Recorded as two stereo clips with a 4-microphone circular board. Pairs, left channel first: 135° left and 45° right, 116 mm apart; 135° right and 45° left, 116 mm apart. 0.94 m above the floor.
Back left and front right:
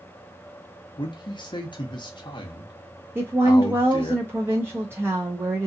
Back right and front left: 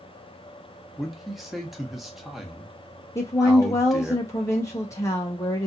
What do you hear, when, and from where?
1.0 s a man speaking: 130° left, 0.9 m
3.1 s a woman speaking: 100° right, 0.7 m